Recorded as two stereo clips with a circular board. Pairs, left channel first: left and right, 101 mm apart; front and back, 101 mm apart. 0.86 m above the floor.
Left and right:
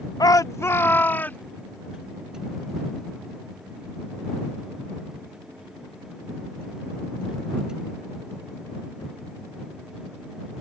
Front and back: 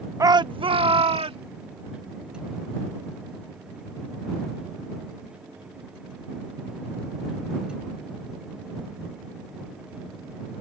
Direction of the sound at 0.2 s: 125° left.